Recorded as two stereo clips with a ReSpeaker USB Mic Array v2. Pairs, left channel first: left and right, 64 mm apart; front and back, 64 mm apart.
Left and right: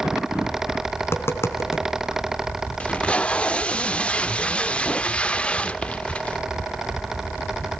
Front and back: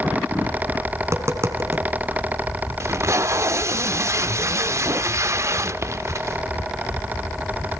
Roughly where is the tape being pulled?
Behind.